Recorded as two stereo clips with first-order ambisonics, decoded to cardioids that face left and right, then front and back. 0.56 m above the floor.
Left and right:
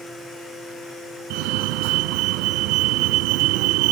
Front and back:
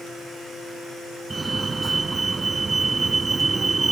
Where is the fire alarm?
105° right.